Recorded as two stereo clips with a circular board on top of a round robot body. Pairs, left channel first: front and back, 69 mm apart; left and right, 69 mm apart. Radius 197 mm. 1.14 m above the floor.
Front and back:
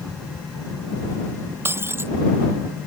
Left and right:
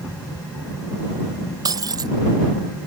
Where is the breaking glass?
120° right.